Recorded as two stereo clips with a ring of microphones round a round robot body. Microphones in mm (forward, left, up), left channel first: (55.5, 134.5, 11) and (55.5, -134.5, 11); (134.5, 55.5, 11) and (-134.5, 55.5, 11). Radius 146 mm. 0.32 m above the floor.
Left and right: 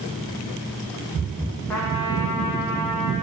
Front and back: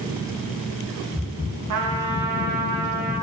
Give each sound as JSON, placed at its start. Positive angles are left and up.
{"t": 1.7, "sound": "a trumpet", "azimuth_deg": 175, "distance_m": 3.0}